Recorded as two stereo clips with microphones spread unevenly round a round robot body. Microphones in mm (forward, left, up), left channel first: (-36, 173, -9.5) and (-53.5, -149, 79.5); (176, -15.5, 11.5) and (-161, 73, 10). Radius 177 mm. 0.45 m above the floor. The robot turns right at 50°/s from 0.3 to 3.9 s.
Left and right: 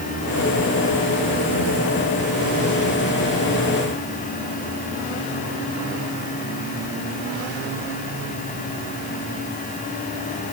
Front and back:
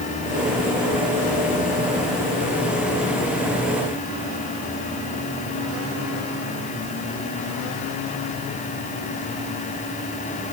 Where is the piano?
I don't hear a piano.